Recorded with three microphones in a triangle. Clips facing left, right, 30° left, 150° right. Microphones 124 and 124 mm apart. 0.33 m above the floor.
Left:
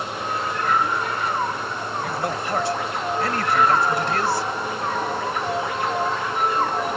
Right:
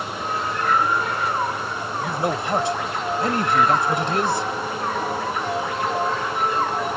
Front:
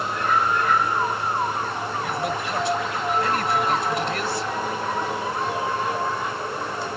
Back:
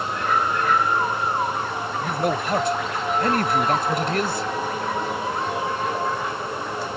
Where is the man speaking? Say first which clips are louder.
Right 4 dB, back 5 dB; 150° right.